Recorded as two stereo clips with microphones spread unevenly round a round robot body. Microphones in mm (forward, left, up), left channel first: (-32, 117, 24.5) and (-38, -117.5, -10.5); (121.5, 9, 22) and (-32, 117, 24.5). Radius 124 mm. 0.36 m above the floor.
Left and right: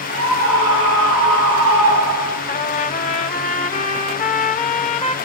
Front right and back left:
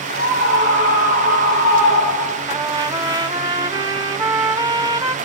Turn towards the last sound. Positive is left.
turn(degrees=125)